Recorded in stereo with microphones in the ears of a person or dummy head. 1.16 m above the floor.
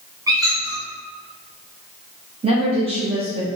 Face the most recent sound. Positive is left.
turn(degrees=-25)  # may be behind; listen again after turning